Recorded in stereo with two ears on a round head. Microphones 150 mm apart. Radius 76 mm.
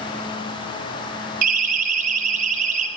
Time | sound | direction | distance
1.4 | a siren | 55° right (ahead or behind) | 6 m